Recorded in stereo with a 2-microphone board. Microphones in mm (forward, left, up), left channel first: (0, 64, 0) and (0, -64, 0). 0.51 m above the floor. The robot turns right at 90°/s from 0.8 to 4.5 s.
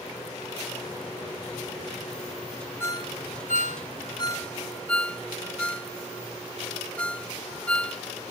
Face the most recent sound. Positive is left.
turn(degrees=10)  # may be behind; listen again after turning